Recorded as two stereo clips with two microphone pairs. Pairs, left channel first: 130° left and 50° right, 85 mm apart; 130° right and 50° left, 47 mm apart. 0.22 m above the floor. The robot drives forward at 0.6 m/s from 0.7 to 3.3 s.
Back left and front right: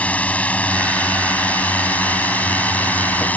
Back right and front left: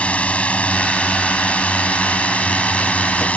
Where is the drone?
170° right.